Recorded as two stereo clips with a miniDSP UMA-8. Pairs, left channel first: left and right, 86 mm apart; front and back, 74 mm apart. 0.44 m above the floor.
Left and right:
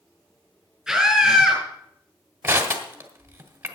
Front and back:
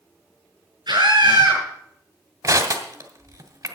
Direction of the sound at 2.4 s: 155° right.